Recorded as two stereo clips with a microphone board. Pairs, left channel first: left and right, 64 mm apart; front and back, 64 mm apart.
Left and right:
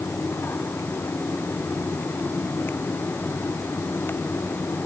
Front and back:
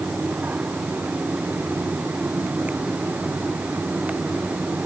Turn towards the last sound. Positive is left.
No sound to turn to.